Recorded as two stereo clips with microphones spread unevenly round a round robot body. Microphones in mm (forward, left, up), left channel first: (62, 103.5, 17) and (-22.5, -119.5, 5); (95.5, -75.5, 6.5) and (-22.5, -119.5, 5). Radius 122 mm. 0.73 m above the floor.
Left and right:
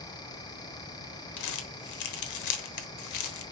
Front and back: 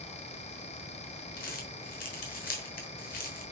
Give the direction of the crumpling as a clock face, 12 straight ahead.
10 o'clock.